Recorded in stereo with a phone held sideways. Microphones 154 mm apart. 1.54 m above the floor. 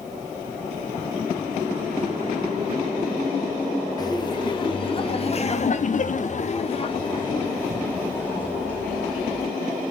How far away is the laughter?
About 1.3 m.